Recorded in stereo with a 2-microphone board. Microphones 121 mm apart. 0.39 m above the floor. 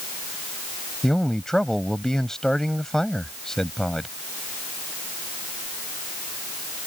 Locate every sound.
1.0 s a man speaking: 5° left (ahead or behind)